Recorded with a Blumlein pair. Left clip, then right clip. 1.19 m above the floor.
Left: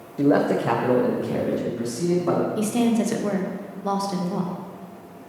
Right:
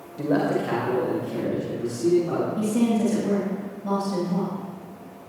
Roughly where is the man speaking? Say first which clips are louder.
Left 4 dB; ahead.